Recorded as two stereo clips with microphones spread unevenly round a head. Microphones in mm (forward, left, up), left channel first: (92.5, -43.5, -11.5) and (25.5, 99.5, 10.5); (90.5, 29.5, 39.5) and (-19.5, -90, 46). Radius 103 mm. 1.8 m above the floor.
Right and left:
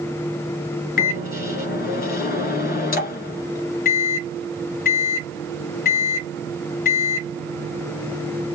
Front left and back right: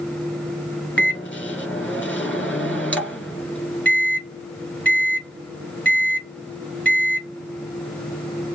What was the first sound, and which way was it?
A microwave, 35° right.